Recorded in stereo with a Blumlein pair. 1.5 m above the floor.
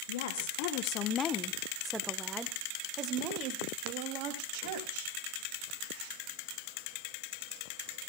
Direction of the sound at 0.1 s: 60° left.